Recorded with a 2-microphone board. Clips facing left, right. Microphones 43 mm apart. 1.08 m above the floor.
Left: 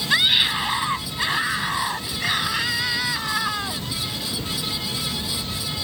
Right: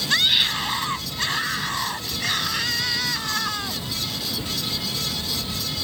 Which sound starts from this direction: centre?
A scream, at 0.1 s.